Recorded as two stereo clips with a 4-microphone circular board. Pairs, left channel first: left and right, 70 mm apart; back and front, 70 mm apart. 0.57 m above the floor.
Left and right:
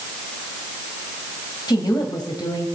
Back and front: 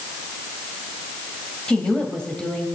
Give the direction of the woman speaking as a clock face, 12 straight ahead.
9 o'clock.